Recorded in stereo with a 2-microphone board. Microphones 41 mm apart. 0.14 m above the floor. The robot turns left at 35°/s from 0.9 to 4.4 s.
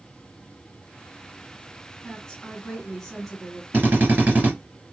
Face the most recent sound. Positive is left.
turn(degrees=-35)  # may be behind; listen again after turning